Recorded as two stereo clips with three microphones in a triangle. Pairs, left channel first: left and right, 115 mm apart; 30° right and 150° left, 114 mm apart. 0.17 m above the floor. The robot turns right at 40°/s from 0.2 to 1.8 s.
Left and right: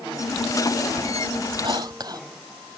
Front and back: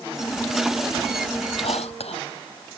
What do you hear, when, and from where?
1.6 s whispering: 45° right; by 2.2 s 40° right